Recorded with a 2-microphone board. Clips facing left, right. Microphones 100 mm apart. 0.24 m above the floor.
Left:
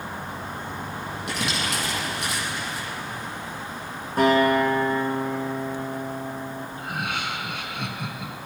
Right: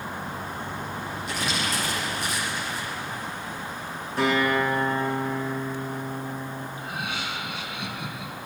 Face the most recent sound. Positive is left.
turn(degrees=55)  # may be behind; listen again after turning